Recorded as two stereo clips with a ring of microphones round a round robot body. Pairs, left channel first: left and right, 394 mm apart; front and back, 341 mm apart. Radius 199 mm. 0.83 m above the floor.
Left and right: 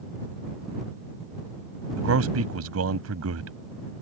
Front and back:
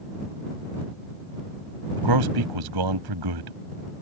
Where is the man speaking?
145° right.